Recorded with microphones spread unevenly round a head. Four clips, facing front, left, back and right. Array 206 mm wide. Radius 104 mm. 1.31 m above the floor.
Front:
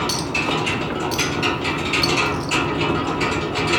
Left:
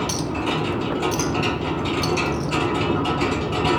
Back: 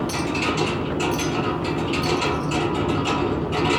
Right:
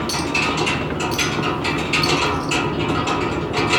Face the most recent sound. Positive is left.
turn(degrees=35)